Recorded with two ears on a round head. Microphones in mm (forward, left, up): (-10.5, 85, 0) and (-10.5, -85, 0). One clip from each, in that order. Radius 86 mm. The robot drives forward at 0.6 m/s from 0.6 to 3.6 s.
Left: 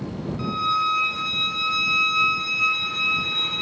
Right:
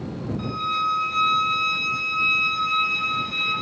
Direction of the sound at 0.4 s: 10° left (ahead or behind).